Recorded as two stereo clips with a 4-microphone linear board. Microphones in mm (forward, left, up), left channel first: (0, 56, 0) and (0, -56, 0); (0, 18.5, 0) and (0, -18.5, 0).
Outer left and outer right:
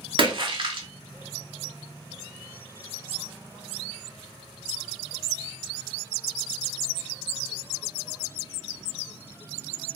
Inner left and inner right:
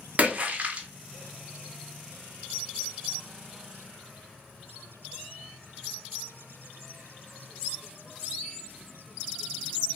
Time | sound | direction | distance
0.2 | a splash | 45° right (ahead or behind) | 0.5 m